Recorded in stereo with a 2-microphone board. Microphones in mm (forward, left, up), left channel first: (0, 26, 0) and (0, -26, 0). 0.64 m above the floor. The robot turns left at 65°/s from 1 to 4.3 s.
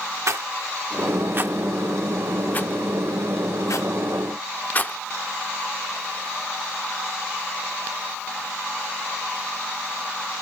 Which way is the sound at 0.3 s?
65° right (ahead or behind).